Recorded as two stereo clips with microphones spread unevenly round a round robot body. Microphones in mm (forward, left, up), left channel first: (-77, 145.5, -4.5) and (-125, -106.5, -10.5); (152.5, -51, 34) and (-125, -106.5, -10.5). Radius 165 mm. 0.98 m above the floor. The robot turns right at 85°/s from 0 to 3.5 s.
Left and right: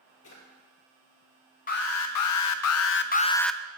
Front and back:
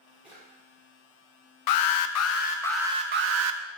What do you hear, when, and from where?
0.2 s a drawer: 100° left, 5.5 m; by 0.4 s 115° left, 5.5 m
1.7 s an alarm: 15° left, 0.7 m; by 3.6 s 170° left, 0.7 m